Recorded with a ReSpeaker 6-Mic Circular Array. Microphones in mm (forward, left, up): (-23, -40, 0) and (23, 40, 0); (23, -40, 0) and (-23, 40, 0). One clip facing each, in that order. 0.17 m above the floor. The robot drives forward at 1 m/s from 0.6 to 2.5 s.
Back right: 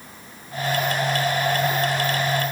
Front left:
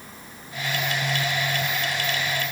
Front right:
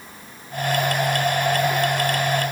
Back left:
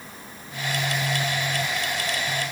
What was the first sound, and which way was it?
Only background noise.